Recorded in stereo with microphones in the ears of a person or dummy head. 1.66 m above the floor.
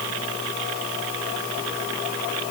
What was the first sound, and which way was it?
Only background noise.